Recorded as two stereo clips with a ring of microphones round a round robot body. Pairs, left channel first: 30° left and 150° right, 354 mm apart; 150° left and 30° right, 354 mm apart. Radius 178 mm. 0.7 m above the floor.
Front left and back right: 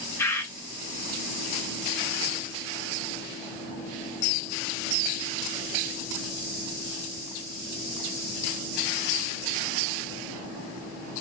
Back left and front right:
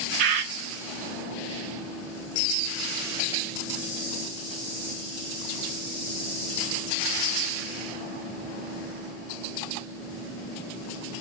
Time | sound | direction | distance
0.2 | a bird | 55° right | 0.8 m